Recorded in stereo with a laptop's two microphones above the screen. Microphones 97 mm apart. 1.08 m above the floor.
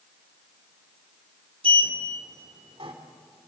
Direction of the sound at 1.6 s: 75° right (ahead or behind).